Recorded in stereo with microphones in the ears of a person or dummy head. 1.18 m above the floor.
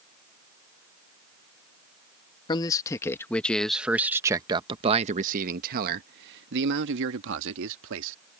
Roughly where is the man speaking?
Left.